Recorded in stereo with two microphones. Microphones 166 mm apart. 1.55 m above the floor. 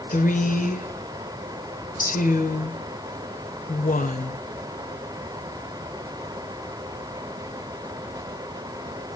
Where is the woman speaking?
55° left (ahead or behind), 1.3 m.